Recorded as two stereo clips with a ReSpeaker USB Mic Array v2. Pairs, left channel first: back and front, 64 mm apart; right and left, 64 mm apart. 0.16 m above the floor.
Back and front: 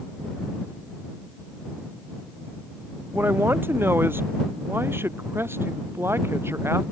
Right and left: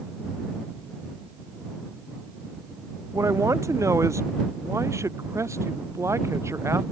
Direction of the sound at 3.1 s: 55° left.